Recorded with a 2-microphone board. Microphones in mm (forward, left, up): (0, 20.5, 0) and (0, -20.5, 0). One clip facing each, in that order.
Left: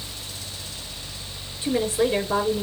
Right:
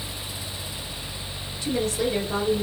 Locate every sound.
1.6 s a woman speaking: 30° left (ahead or behind), 3.5 m